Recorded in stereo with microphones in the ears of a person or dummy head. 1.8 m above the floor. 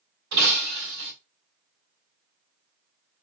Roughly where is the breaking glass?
Right.